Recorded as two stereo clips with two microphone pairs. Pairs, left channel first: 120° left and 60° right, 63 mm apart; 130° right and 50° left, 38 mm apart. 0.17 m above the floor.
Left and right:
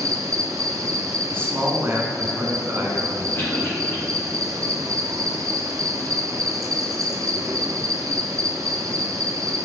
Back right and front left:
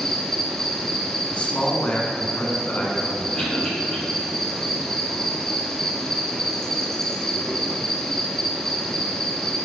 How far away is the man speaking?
About 1.3 m.